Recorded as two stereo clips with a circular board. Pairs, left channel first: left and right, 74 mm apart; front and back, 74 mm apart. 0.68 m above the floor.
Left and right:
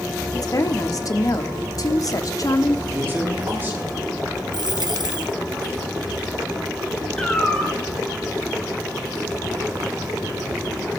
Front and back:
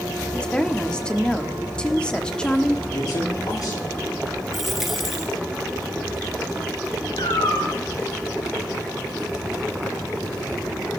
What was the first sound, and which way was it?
A woman speaking, 75° left.